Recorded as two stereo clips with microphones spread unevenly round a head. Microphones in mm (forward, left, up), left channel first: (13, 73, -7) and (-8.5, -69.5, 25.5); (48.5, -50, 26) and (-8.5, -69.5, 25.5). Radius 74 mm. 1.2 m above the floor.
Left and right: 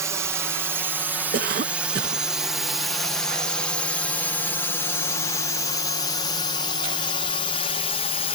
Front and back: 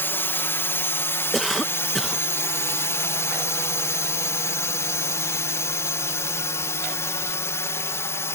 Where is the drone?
20° right; by 8.3 s 60° left.